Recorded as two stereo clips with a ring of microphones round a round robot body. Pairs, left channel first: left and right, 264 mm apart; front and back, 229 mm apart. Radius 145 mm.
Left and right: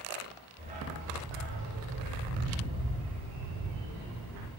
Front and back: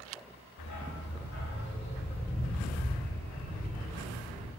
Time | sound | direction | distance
0.6 | a dog barking | 20° right | 1.4 m